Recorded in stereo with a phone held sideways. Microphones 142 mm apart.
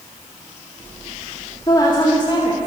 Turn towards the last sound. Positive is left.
turn(degrees=45)  # may be behind; listen again after turning